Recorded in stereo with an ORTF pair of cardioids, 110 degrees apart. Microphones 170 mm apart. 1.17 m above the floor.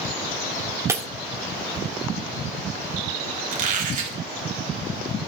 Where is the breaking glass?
15° right, 1.6 m.